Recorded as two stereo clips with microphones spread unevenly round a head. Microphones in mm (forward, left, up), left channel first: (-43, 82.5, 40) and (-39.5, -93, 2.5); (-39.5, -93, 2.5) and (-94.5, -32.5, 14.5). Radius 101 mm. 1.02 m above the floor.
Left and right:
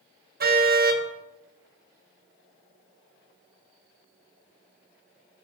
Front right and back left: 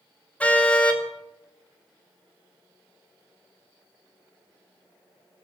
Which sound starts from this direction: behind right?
A car horn, at 0.4 s.